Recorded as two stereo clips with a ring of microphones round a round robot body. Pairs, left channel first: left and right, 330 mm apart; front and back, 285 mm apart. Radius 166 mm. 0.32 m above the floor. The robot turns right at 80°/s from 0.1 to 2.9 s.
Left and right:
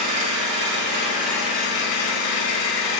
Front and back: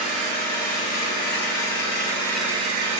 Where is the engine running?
95° right, 1.1 m; by 3.0 s 130° left, 1.1 m.